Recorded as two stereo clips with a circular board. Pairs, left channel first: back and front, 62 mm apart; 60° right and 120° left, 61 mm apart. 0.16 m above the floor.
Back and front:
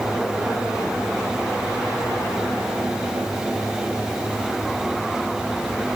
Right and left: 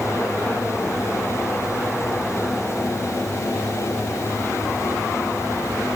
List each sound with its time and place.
Only background noise.